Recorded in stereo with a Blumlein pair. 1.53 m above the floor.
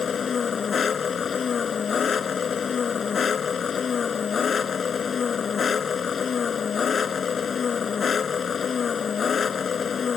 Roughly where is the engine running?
Ahead.